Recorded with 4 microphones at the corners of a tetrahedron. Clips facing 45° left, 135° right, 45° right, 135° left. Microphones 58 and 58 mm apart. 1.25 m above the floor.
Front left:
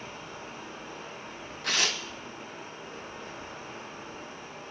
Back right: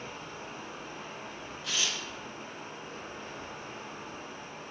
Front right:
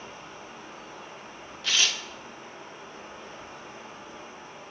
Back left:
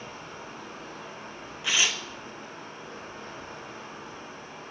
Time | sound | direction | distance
0.0 | running water | 135° left | 4 m
1.6 | tearing paper | 65° left | 0.8 m